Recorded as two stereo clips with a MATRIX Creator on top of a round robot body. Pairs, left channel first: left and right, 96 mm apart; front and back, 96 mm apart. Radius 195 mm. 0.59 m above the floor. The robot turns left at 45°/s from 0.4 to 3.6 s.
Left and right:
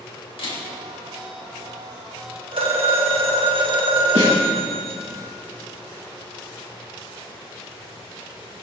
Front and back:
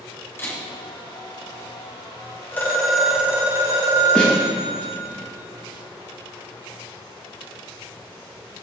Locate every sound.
0.4 s a camera shutter: 65° left, 3.5 m; by 0.6 s 55° left, 3.5 m
2.5 s a phone ringing: 70° right, 2 m; by 5.0 s 120° right, 2 m
4.2 s a snare drum: 85° right, 4.5 m